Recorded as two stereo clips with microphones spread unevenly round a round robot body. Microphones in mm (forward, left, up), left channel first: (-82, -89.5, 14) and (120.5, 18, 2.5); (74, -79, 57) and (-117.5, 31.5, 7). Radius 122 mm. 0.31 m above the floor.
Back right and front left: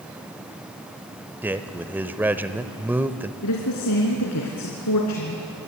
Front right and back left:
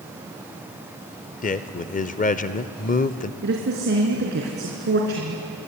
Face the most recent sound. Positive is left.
turn(degrees=-170)